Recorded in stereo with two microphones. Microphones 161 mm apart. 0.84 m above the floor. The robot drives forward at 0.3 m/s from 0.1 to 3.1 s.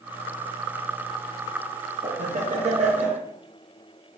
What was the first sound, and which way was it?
Laughter, 45° right (ahead or behind).